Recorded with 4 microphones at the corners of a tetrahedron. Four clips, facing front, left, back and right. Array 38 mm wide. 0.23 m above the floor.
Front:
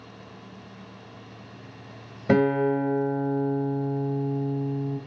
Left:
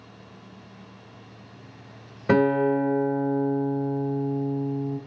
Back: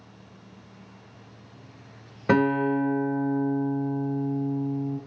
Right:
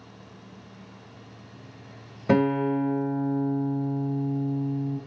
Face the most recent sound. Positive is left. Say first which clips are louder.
# left 2 dB, front 1 dB
turn(degrees=160)